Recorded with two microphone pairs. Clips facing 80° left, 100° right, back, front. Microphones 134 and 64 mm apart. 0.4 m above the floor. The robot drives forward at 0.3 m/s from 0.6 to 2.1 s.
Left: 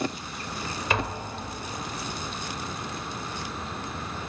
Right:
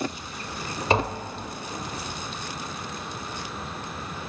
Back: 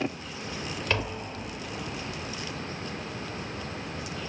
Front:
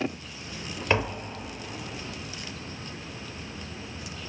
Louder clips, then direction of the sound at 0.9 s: Right 6 dB, front 5 dB; 60° right.